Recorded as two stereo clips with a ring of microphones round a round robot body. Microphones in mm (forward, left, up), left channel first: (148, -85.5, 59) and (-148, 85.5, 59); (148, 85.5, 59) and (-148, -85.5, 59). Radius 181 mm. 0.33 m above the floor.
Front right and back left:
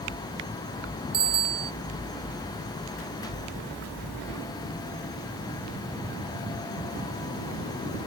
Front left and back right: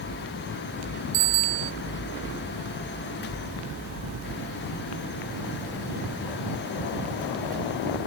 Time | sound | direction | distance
1.1 | a bicycle bell | 160° right | ?